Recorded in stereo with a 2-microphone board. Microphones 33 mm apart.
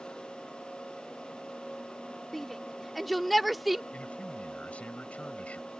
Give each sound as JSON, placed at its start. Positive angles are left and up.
{"t": 2.3, "sound": "a shout", "side_deg": 5}
{"t": 3.9, "sound": "a man speaking", "side_deg": 40}